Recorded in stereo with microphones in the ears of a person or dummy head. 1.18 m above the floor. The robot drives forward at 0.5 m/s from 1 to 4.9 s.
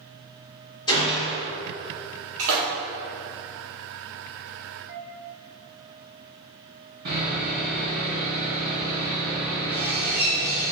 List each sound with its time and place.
0.9 s a gunshot: 25° left (ahead or behind), 1.9 m; by 1.5 s 30° left (ahead or behind), 1.7 m
2.4 s a splash: 75° right (ahead or behind), 1.6 m
4.8 s a flute: 40° right (ahead or behind), 2.0 m
7.0 s sawing: 50° right (ahead or behind), 2.0 m